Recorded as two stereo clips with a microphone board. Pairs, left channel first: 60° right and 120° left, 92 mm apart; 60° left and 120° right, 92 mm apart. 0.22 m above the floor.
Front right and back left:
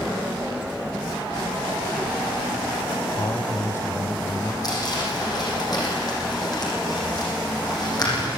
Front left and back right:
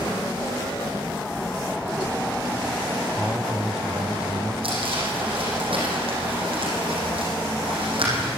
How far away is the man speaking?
About 1.1 m.